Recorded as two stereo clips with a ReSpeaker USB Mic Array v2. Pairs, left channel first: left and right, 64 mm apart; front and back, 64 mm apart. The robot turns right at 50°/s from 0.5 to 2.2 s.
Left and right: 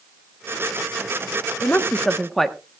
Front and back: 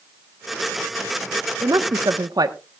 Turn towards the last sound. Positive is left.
turn(degrees=175)